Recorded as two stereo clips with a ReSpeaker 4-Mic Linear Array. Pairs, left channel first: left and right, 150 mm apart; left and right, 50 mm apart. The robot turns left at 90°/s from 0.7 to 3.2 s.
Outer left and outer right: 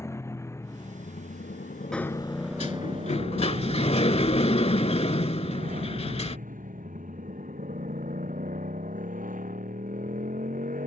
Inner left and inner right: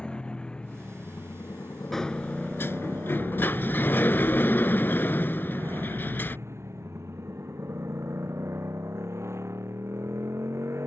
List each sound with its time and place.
0.0 s a motorcycle: 160° left; by 10.9 s 65° right
1.9 s a sliding door: 175° left; by 6.4 s 60° left